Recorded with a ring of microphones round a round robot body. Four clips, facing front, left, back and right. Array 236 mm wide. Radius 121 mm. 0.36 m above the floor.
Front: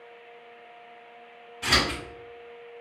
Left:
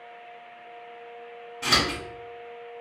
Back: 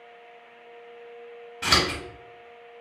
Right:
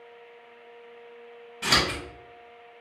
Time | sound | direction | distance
1.6 | scissors | 165° right | 1.5 m